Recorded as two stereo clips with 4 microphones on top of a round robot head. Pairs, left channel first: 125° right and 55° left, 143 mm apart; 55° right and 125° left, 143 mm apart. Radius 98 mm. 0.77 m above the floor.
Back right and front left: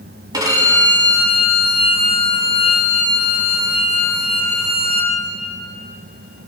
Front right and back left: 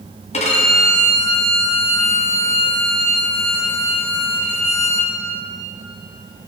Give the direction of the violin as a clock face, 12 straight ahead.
12 o'clock.